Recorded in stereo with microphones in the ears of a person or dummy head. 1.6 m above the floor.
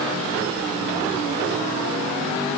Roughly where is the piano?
No piano in this recording.